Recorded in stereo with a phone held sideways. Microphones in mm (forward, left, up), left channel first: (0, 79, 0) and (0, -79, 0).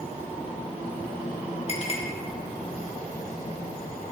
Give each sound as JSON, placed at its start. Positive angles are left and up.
{"t": 1.7, "sound": "a clink", "side_deg": 45, "distance_m": 0.9}